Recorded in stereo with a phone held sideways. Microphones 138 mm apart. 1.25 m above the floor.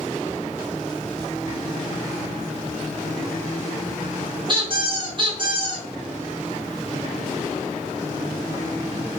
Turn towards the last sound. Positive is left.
turn(degrees=-35)  # may be behind; listen again after turning